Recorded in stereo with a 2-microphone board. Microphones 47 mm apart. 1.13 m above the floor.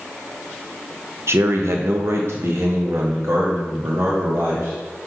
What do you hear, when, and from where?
1.3 s a man speaking: 65° right (ahead or behind), 0.8 m; by 5.1 s 80° right, 2.5 m